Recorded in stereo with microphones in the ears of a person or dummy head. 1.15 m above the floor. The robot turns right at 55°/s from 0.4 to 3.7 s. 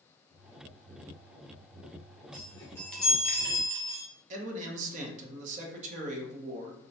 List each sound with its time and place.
2.3 s a chime: 140° left, 0.6 m; by 4.0 s 145° right, 0.6 m
4.3 s a man speaking: 45° right (ahead or behind), 0.8 m